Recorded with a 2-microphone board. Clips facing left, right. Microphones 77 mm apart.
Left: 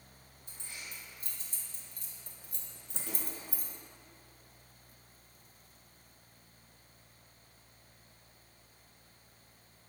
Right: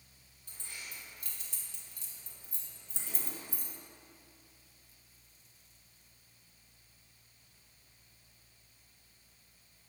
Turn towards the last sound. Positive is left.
turn(degrees=40)  # may be behind; listen again after turning